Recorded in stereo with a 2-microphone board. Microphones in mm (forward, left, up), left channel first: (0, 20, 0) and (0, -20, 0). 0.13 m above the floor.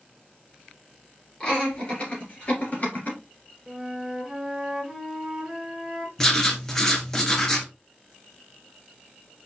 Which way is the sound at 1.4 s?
25° left (ahead or behind).